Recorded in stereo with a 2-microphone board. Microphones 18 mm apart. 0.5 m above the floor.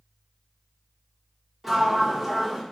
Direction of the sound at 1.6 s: 10° right (ahead or behind).